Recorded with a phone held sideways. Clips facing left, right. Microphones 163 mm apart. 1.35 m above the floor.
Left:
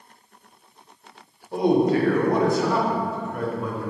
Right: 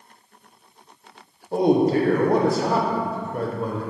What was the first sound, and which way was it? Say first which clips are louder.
A man speaking: right 1 dB; 35° right (ahead or behind).